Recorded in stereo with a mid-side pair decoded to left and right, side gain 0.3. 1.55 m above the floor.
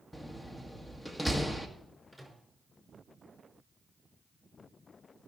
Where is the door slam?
15° left, 1.8 m.